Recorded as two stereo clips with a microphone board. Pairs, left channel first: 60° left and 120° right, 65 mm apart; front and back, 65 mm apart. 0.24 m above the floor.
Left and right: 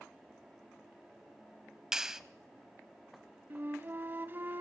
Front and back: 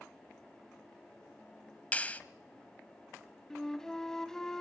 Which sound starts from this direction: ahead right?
A clap, at 1.9 s.